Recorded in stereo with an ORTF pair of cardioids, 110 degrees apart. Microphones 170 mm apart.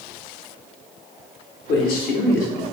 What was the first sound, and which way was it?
A man speaking, 65° left.